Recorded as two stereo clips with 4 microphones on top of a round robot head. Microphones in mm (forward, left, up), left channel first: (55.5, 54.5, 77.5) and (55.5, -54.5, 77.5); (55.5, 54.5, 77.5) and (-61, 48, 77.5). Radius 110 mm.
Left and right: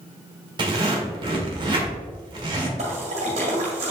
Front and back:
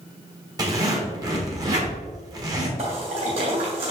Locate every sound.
0.6 s a zipper: 125° right, 1.4 m
2.8 s a splash: 130° right, 1.6 m